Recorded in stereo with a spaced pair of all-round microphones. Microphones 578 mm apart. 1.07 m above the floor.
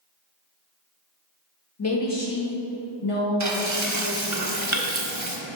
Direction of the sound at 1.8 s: 25° left (ahead or behind).